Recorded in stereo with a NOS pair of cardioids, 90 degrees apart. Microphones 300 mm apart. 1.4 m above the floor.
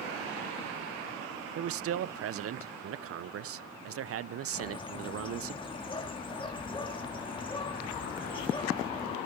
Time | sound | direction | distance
1.6 | a man speaking | 55° right | 0.5 m
4.5 | a bird | 15° left | 2 m